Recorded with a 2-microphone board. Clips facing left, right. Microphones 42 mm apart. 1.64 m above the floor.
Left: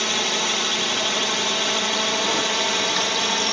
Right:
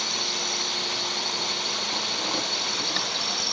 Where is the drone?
70° left (ahead or behind); by 3.5 s 65° left (ahead or behind).